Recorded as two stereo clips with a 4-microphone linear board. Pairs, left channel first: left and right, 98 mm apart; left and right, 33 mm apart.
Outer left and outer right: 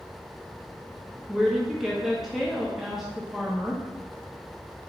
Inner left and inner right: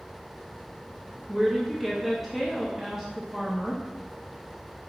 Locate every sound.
1.3 s a woman speaking: centre (ahead or behind), 0.5 m